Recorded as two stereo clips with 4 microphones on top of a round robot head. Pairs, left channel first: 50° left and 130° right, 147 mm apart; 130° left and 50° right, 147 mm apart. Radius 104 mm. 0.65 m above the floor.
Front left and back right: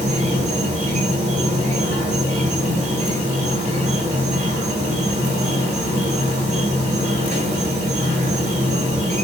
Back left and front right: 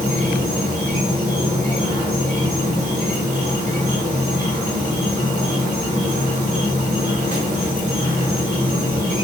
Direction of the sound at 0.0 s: 85° right.